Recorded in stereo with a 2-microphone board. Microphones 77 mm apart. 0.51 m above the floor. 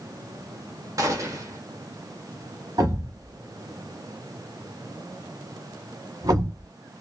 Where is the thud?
60° right (ahead or behind), 1.1 m.